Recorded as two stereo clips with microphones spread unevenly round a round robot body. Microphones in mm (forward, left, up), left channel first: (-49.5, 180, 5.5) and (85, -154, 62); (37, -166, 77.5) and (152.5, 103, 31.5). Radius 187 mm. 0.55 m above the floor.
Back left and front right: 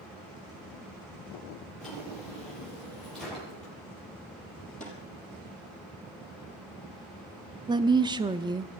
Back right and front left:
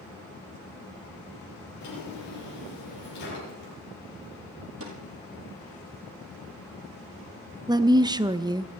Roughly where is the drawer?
Behind.